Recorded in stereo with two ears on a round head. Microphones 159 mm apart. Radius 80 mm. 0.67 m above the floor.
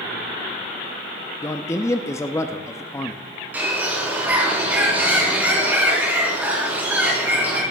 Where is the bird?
10° right (ahead or behind), 4 m.